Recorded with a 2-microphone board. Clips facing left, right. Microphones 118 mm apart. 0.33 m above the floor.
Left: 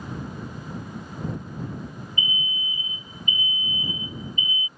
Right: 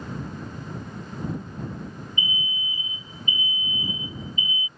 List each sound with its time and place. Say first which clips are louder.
2.2 s an alarm: left 1 dB; 35° right (ahead or behind)